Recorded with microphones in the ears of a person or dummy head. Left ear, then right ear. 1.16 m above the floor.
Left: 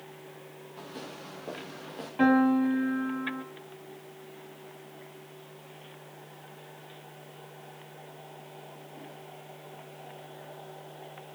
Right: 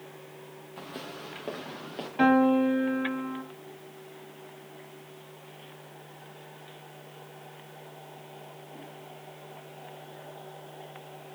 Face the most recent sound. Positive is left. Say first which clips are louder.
# right 2 dB
turn(degrees=-20)  # may be behind; listen again after turning